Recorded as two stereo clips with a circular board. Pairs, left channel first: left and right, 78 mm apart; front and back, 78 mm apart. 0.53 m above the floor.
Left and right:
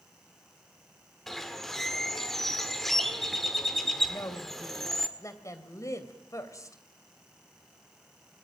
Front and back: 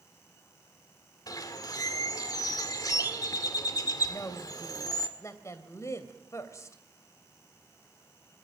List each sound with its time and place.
1.3 s a bird: 5° left, 1.8 m
4.1 s a woman speaking: 45° left, 2.5 m